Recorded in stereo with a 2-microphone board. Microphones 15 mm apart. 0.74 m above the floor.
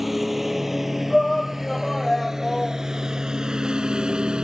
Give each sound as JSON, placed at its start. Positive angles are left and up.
{"t": 0.0, "sound": "a lawn mower", "side_deg": -15}
{"t": 1.1, "sound": "a shout", "side_deg": 15}